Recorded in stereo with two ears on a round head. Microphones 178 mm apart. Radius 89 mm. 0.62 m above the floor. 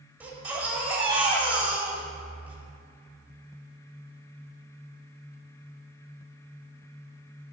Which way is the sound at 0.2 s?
10° right (ahead or behind).